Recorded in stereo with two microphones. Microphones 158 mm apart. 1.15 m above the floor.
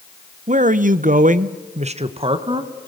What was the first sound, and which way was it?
A man speaking, 50° right (ahead or behind).